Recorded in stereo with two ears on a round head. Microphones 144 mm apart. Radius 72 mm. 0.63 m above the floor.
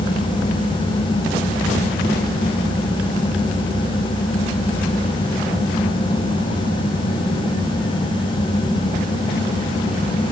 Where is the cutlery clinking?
I don't hear cutlery clinking.